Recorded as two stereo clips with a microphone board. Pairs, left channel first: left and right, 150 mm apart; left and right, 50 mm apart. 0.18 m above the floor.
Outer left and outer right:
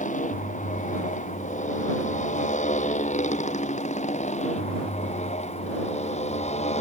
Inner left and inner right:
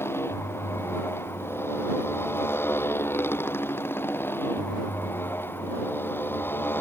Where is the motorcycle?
55° left (ahead or behind); by 6.8 s 50° left (ahead or behind).